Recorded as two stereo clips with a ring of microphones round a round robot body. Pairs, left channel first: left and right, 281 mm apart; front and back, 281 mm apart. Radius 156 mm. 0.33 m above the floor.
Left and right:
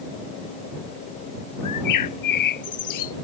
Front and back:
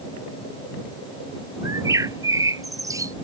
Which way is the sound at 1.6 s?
100° left.